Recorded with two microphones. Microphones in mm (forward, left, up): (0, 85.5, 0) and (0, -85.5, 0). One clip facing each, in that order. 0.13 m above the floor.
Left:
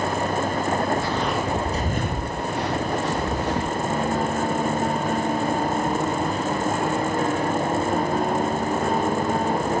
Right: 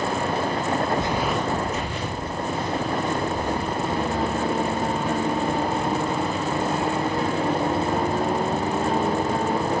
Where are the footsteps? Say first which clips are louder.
Even; 25° right (ahead or behind), 0.8 m; by 3.8 s 85° left, 2 m.